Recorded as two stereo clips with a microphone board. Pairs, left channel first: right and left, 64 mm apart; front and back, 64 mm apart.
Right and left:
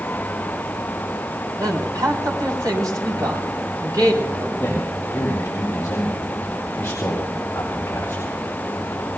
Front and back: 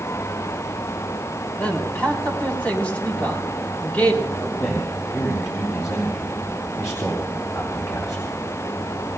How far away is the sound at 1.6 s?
About 3.5 m.